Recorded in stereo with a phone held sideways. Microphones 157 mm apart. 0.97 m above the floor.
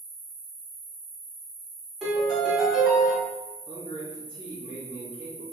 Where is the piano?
Centre (ahead or behind), 1.3 m.